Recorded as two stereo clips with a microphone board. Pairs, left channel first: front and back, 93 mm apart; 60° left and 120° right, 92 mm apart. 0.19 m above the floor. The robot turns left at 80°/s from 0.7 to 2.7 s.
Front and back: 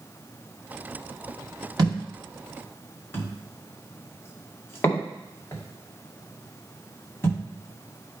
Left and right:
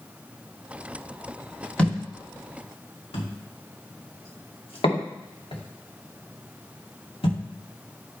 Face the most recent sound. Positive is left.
turn(degrees=65)